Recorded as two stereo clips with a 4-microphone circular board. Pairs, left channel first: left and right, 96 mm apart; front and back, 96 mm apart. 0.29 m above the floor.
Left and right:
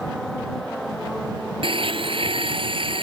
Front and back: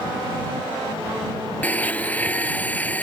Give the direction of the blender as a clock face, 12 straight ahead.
2 o'clock.